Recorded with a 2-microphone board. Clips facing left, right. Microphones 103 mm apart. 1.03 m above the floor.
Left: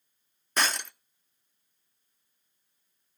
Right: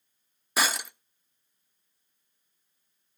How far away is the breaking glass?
About 0.6 m.